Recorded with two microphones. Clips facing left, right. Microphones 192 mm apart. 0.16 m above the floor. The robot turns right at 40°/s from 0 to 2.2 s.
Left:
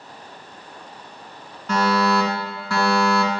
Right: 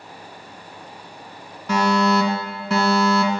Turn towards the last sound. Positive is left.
turn(degrees=-20)  # may be behind; listen again after turning